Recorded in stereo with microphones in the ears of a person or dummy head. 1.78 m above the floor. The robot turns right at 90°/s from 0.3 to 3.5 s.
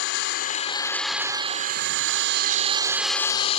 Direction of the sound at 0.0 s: 110° left.